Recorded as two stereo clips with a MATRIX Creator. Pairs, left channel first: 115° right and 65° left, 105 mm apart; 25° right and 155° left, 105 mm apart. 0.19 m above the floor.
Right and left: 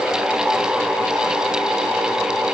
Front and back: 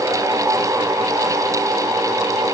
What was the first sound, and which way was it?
Only background noise.